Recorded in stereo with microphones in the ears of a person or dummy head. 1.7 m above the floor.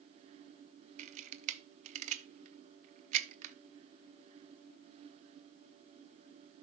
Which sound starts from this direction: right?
A camera shutter, at 1.0 s.